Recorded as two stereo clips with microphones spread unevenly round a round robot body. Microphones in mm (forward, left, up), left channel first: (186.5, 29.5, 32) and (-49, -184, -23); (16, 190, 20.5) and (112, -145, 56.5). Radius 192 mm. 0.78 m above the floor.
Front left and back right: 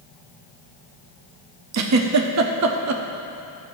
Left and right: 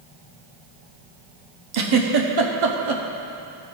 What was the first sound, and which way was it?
A giggle, 105° right.